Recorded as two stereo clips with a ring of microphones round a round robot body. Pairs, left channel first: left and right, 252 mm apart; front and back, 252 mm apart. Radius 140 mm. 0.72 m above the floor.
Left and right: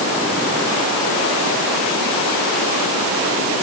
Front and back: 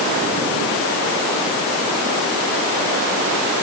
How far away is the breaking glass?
No breaking glass in this recording.